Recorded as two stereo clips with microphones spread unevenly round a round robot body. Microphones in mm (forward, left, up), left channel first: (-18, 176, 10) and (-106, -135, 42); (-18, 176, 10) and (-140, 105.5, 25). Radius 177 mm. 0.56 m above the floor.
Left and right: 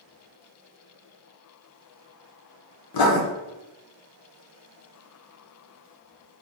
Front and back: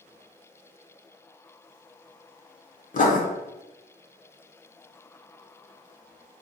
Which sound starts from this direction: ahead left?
Writing, at 2.9 s.